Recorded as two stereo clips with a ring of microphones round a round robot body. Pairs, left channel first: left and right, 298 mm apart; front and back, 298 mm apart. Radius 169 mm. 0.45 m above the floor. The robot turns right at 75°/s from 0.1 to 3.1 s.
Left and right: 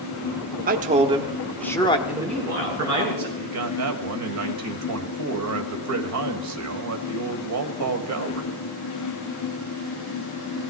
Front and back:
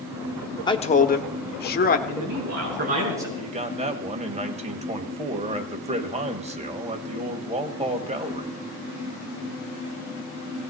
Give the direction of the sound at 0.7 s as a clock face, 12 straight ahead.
2 o'clock.